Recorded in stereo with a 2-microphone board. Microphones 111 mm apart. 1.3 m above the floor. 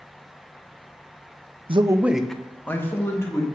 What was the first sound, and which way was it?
A man speaking, 50° right (ahead or behind).